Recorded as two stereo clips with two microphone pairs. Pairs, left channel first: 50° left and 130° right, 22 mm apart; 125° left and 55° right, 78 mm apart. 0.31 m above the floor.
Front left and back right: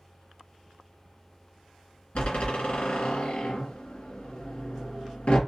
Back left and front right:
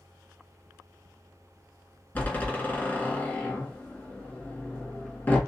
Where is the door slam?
60° left, 2 m.